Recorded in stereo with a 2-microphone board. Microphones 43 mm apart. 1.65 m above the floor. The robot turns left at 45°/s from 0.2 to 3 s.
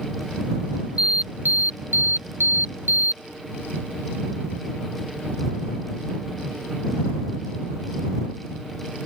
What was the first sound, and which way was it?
An alarm, 30° right.